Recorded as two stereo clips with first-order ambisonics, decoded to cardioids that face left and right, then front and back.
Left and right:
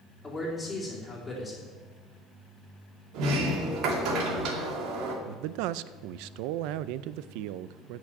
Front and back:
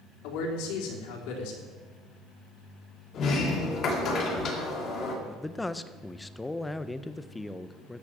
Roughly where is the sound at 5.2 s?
Right.